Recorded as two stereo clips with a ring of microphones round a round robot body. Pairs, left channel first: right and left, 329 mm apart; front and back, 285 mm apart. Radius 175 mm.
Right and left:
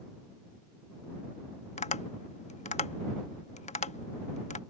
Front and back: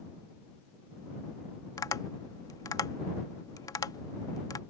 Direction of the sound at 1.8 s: 60° right.